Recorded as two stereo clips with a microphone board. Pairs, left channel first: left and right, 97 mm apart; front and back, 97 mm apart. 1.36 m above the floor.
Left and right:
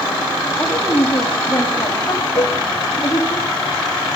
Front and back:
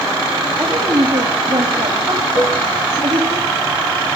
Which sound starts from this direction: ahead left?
A cowbell, at 2.4 s.